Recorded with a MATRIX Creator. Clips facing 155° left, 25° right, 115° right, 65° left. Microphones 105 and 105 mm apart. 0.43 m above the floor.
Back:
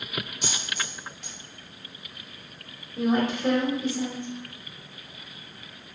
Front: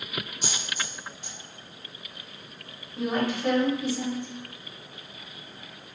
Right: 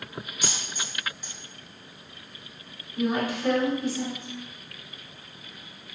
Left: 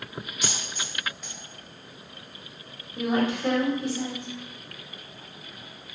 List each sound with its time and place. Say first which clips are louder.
0.4 s a dropped coin: back 1 dB, even; 165° left, 1.4 m
3.0 s a woman speaking: back 3 dB, left 1 dB; 110° left, 1.5 m